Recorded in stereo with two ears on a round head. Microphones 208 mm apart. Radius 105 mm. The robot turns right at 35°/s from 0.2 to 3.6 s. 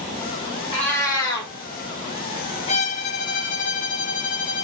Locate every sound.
0.7 s a cat meowing: 25° left (ahead or behind), 1.8 m; by 1.5 s 50° left (ahead or behind), 1.8 m
2.7 s a violin: 50° left, 0.8 m; by 4.6 s 85° left, 0.8 m